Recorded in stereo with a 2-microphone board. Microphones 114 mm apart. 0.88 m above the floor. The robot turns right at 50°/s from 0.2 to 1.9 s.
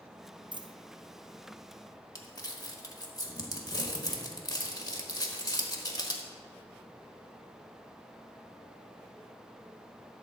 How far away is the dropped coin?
About 0.5 m.